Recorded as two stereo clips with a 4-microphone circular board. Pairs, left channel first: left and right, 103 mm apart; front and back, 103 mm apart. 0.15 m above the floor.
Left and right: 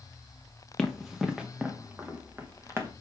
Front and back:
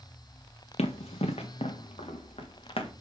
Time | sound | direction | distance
0.8 | running footsteps | 5° left | 1.4 m